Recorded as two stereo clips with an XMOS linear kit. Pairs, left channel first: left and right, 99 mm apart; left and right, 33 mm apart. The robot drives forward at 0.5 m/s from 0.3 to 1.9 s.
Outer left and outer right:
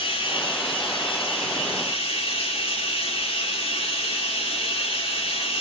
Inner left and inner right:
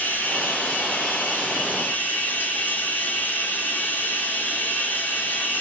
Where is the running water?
60° left (ahead or behind), 2.5 m; by 5.6 s 75° left (ahead or behind), 2.5 m.